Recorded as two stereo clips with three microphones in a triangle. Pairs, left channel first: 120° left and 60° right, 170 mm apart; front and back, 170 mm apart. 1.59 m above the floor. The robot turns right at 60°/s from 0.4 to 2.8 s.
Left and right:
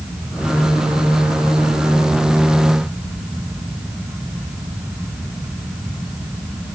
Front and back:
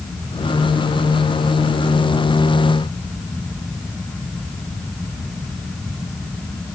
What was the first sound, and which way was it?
Only background noise.